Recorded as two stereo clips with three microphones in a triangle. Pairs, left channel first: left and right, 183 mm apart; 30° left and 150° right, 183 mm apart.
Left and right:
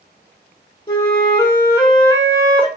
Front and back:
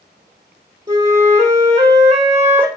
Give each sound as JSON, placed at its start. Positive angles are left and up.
{"t": 0.9, "sound": "a flute", "azimuth_deg": 150, "distance_m": 0.9}